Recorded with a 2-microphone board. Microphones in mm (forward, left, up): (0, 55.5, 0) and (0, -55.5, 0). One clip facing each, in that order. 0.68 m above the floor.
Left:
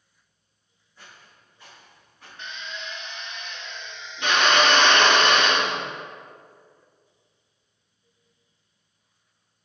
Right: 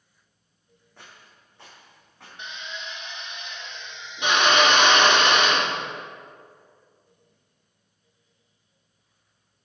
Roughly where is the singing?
I don't hear singing.